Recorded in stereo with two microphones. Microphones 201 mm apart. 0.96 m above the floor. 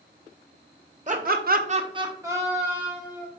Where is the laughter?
35° right (ahead or behind), 0.6 m; by 3.3 s 5° right (ahead or behind), 2 m.